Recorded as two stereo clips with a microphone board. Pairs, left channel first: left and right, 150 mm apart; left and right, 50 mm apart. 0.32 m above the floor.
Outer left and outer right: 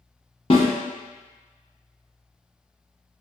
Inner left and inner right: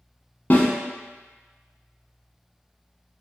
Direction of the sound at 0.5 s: 40° left (ahead or behind).